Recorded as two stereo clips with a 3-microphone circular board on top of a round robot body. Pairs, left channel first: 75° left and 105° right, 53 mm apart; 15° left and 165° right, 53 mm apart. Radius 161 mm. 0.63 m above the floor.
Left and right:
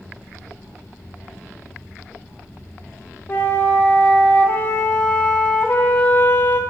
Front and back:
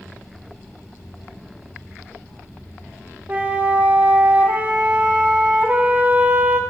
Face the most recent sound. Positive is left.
turn(degrees=130)